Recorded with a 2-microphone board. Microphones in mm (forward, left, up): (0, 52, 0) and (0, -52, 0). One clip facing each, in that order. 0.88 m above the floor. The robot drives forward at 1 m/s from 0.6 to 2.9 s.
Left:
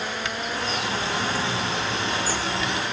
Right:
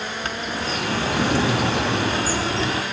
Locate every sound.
0.2 s a bird: 45° right (ahead or behind), 1.2 m; by 2.8 s 30° right (ahead or behind), 1.6 m